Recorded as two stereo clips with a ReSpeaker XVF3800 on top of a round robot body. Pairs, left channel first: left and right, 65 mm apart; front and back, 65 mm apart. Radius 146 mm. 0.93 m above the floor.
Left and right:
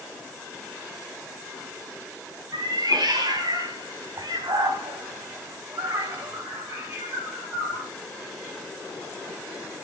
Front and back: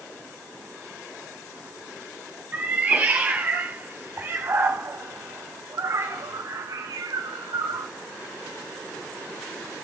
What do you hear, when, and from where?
2.5 s a cat meowing: 110° right, 3.5 m; by 7.9 s straight behind, 1.2 m